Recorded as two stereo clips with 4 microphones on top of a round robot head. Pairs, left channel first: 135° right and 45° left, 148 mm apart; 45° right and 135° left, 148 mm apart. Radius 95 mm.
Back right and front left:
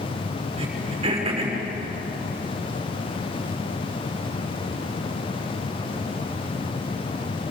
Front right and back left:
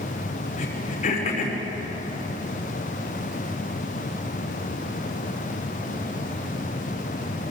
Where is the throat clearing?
5° right, 6 m.